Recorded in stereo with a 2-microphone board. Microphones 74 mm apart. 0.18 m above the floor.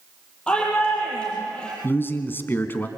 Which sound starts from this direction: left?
A man speaking, at 1.8 s.